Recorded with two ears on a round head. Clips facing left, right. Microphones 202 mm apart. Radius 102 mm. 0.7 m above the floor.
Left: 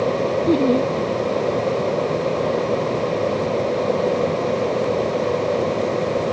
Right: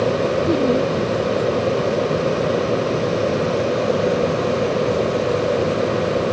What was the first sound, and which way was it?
Laughter, 15° left (ahead or behind).